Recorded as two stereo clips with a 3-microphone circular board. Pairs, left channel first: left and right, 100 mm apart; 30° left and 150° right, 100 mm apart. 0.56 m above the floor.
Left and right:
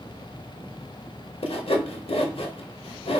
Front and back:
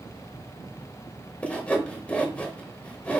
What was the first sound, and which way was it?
Sawing, 105° left.